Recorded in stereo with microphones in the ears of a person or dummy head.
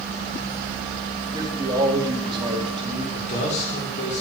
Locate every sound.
1.3 s a man speaking: 25° right (ahead or behind), 2.5 m
3.1 s a man speaking: 40° left (ahead or behind), 4 m